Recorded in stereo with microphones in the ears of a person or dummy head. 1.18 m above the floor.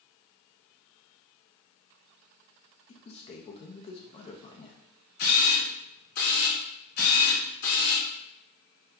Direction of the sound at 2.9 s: 35° left (ahead or behind).